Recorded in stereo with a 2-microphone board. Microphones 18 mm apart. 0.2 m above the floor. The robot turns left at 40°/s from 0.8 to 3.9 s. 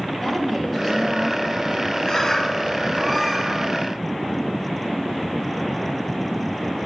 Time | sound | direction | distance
0.2 | a woman speaking | straight behind | 5.5 m
2.0 | a bird | 55° left | 2.0 m